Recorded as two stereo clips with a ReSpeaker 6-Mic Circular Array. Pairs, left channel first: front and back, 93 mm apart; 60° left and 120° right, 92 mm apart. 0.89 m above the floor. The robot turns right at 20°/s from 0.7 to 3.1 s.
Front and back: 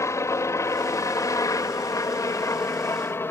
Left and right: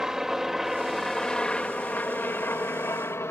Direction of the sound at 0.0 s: 40° right.